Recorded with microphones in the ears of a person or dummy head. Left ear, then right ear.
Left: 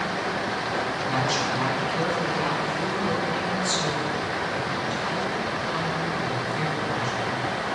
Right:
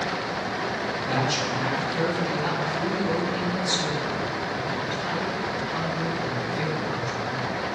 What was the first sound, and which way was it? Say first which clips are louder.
A woman speaking: right 1 dB; 35° left (ahead or behind).